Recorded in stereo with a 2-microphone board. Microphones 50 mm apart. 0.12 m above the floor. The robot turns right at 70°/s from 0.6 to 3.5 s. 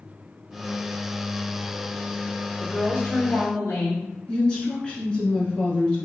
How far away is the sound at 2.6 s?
About 1.5 m.